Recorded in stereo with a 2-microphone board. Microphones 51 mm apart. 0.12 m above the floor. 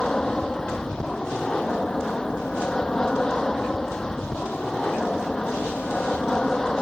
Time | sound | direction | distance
0.0 | an aircraft | 15° left (ahead or behind) | ?